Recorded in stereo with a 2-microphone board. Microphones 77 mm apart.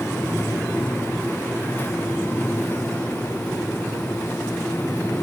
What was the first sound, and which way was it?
Only background noise.